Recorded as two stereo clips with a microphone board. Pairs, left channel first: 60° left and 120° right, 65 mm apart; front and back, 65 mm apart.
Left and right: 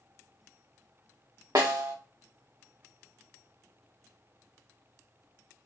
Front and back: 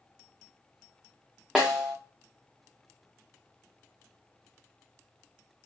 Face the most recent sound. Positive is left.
turn(degrees=-95)